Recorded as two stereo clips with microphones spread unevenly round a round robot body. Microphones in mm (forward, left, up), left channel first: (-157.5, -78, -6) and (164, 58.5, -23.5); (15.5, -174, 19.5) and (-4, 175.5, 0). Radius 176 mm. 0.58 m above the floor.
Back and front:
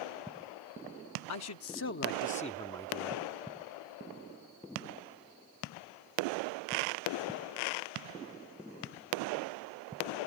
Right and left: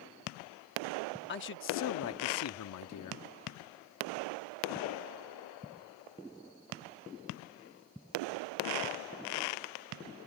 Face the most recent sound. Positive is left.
turn(degrees=-60)